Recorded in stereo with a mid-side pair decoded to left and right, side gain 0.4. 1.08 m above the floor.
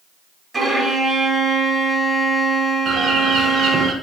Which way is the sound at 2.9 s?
70° right.